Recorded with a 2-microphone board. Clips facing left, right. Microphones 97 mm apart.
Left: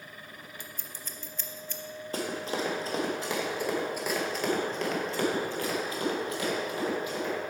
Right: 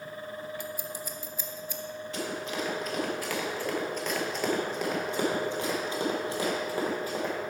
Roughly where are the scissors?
Centre.